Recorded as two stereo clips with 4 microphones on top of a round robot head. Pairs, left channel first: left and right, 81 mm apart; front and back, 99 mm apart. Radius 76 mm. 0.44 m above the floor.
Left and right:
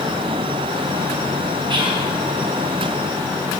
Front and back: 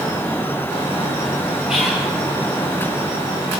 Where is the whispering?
95° right, 3 m.